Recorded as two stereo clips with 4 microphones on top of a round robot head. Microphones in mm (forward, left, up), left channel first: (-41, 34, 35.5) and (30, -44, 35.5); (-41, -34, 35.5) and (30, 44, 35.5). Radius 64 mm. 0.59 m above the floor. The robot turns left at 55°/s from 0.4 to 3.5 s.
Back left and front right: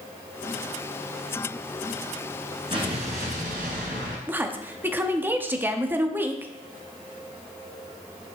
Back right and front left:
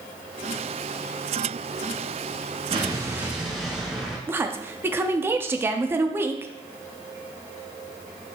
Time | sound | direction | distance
2.7 | an explosion | straight ahead | 1.6 m
4.3 | a woman speaking | 5° left | 0.7 m